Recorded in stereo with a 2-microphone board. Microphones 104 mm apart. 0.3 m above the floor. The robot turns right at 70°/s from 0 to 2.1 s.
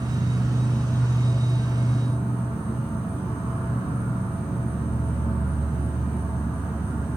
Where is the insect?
70° right, 1.0 m; by 7.2 s 80° left, 1.0 m.